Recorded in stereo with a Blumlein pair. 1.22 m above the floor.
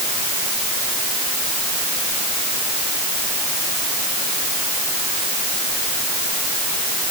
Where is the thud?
No thud in this recording.